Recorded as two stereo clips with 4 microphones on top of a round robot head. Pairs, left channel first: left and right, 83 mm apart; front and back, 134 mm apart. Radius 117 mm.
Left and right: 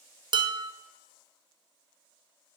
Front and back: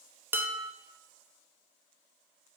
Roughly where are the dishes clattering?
Right.